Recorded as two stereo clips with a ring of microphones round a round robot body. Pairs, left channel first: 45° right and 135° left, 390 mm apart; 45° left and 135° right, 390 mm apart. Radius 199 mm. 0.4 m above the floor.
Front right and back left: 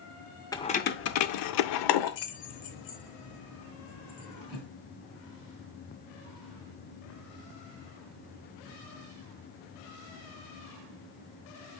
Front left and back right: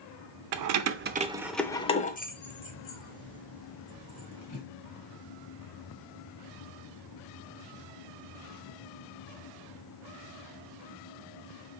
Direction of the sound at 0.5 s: 125° right.